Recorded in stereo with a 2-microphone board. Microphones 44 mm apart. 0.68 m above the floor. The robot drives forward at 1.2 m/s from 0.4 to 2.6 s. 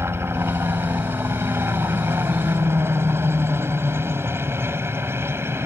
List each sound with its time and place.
0.0 s a helicopter: 70° right (ahead or behind)